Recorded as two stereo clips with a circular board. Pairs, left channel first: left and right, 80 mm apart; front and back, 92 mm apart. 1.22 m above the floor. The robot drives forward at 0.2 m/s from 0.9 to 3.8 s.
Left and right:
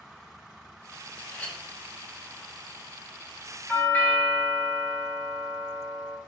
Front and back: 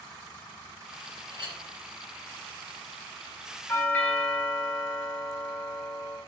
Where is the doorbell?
40° left, 0.7 m; by 6.2 s 45° left, 0.7 m.